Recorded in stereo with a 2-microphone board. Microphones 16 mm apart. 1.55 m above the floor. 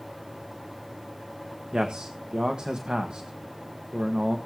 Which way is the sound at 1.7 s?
70° right (ahead or behind).